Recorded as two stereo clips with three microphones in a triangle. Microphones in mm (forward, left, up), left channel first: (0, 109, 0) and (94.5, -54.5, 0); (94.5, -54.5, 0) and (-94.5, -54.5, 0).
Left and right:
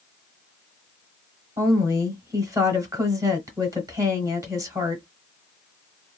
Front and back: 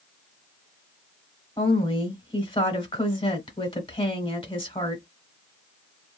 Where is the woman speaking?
10° right, 1.0 m.